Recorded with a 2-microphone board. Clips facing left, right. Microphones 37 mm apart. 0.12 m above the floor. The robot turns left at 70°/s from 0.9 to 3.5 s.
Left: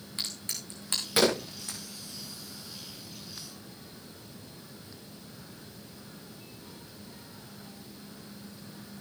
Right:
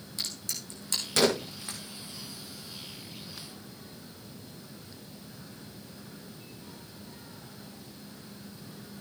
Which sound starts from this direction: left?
A crack, at 0.2 s.